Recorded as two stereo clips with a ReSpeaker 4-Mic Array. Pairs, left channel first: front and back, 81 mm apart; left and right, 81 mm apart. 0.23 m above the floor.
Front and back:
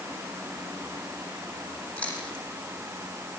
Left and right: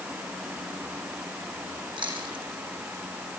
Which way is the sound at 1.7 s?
75° right.